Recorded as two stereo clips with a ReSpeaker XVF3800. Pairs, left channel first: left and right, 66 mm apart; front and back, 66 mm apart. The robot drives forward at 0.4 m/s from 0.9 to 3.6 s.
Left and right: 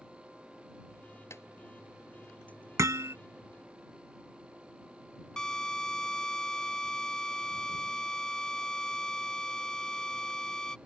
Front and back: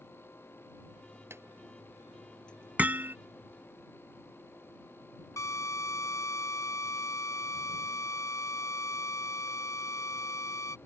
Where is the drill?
10° left.